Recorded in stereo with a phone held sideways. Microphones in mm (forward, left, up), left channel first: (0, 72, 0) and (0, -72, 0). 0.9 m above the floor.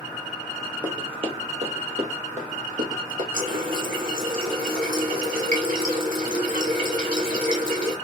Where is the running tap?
80° right, 1.7 m.